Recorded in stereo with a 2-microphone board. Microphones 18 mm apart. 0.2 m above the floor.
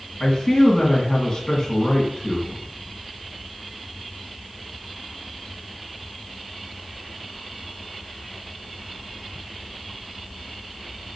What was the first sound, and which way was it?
A man speaking, 10° left (ahead or behind).